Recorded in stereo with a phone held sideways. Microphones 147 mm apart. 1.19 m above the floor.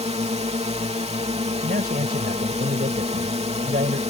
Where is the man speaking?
80° right.